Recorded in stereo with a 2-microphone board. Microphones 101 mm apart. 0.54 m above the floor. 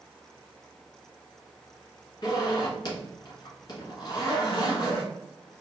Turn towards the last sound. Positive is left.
turn(degrees=45)  # may be behind; listen again after turning